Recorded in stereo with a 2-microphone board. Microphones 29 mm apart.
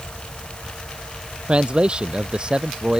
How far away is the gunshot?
I don't hear a gunshot.